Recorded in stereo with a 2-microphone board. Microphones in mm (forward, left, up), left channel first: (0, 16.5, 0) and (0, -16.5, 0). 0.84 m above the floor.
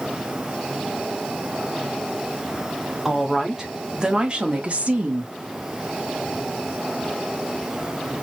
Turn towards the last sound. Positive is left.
turn(degrees=-55)  # may be behind; listen again after turning